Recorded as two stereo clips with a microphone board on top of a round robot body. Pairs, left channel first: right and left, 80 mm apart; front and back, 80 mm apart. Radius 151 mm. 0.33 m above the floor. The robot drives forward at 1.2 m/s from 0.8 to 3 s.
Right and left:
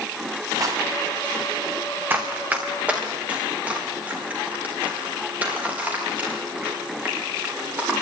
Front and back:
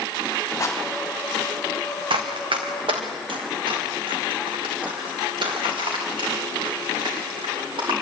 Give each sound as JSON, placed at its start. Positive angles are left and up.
{"t": 0.6, "sound": "a rattle", "azimuth_deg": 50, "distance_m": 3.0}
{"t": 2.1, "sound": "running footsteps", "azimuth_deg": 160, "distance_m": 1.5}